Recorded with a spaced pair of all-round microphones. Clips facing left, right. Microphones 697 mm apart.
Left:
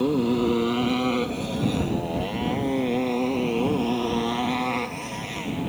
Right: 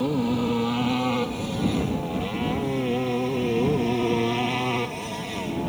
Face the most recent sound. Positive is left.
turn(degrees=-65)  # may be behind; listen again after turning